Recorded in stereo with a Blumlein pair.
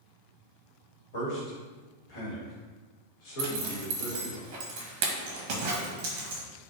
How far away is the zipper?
About 0.6 m.